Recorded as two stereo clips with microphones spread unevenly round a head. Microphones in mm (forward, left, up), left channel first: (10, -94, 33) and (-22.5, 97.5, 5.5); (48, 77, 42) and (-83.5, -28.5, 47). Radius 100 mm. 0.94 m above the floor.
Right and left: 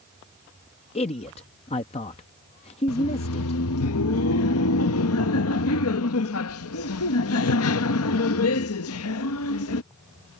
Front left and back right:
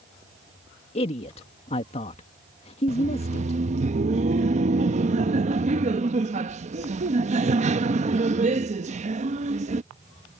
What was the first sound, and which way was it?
A man speaking, 20° right.